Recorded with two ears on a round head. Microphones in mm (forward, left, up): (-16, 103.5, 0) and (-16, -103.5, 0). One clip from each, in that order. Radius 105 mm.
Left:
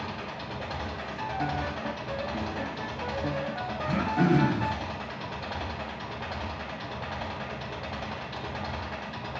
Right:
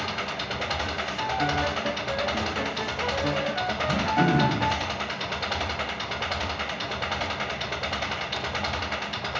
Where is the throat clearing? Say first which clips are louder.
Right 2 dB; 20° left (ahead or behind), 4 m.